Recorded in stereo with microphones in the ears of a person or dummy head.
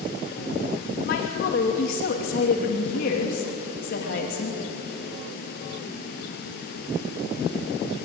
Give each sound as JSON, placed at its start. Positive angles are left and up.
{"t": 1.1, "sound": "a woman speaking", "side_deg": 60, "distance_m": 3.0}